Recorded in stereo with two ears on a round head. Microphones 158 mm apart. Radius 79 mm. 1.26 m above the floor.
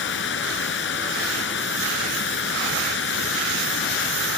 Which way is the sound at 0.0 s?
75° left (ahead or behind).